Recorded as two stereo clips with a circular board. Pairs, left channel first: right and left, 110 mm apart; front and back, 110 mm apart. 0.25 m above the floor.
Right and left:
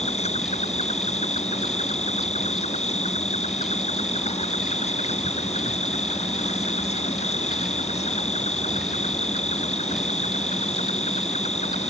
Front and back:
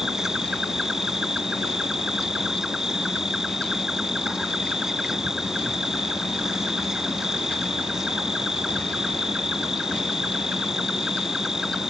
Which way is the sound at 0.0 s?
95° right.